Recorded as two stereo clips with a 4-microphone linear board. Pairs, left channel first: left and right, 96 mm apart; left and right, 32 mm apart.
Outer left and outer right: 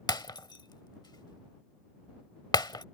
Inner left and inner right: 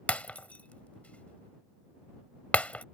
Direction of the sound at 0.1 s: 45° left (ahead or behind).